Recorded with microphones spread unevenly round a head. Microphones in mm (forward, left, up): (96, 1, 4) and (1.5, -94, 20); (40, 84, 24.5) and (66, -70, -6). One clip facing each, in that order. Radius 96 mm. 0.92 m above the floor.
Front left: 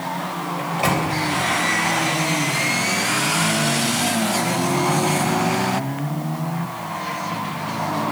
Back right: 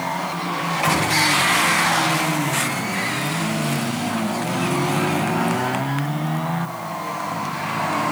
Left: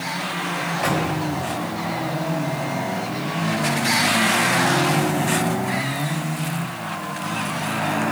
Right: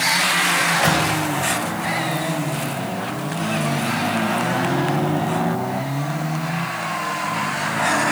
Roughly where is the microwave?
Ahead.